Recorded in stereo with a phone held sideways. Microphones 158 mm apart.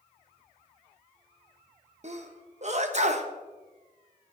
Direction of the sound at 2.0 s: 50° right (ahead or behind).